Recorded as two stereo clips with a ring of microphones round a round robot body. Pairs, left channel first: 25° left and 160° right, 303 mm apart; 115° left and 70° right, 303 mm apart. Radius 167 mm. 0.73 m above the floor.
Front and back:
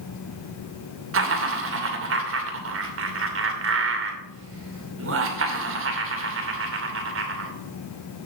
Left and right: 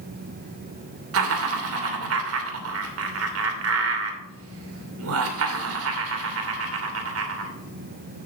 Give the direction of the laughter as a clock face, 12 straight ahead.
4 o'clock.